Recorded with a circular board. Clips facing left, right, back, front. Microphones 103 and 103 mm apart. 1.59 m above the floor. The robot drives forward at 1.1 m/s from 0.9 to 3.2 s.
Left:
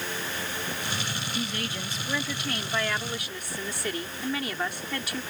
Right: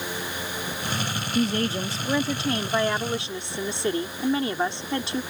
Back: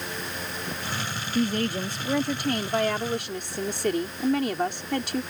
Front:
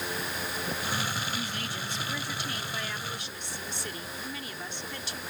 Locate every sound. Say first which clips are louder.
1.4 s a woman speaking: right 12 dB, back 11 dB; 140° right; by 5.2 s 155° right